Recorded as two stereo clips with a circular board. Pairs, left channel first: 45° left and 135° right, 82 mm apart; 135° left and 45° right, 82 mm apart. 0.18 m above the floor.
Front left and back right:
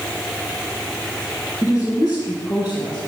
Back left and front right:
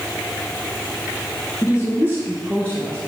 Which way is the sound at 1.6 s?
90° left.